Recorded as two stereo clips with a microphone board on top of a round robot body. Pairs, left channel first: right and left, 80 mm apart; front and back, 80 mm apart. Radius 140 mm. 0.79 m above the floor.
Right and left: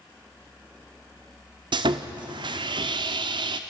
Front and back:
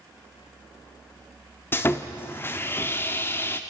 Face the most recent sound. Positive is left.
turn(degrees=65)